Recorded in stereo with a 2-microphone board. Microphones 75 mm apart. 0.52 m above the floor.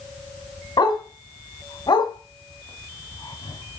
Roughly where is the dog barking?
Left.